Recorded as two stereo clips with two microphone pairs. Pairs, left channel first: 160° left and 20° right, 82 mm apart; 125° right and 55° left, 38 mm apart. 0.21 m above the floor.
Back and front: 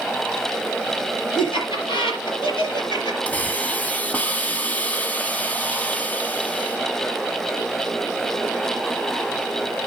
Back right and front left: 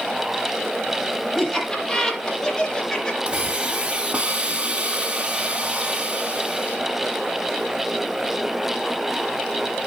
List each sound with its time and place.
1.4 s laughter: 150° left, 6.5 m; by 3.2 s 155° left, 4 m
3.3 s a hiss: 95° left, 1.4 m